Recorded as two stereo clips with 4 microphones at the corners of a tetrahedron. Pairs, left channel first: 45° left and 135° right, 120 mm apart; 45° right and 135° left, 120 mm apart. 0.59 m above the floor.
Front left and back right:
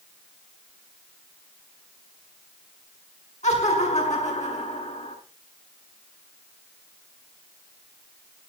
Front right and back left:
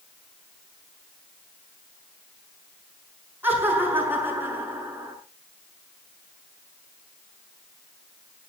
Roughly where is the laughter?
Ahead left.